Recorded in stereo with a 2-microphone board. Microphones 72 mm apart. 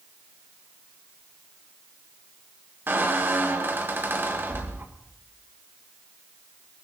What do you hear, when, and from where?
2.9 s a squeak: 35° right (ahead or behind), 1.3 m